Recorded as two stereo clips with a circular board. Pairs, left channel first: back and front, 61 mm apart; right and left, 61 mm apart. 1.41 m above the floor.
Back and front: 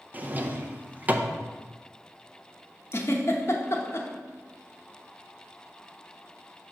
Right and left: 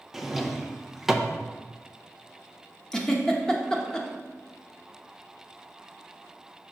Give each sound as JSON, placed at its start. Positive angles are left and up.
{"t": 0.1, "sound": "a drawer", "azimuth_deg": 10, "distance_m": 0.5}
{"t": 2.9, "sound": "a giggle", "azimuth_deg": -165, "distance_m": 0.8}